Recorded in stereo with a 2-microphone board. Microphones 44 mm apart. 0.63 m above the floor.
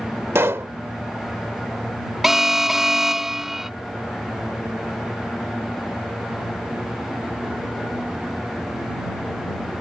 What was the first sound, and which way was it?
A pop, 70° right (ahead or behind).